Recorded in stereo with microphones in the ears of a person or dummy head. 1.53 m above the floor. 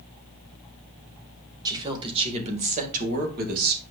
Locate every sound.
1.6 s a woman speaking: 20° right (ahead or behind), 1.7 m; by 3.8 s 55° right (ahead or behind), 2.5 m